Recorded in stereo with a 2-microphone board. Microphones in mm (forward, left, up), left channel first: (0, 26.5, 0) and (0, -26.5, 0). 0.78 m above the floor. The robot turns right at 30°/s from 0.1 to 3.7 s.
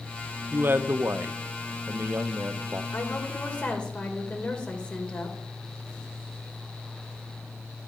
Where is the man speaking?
125° right, 0.5 m; by 2.8 s 55° right, 0.5 m.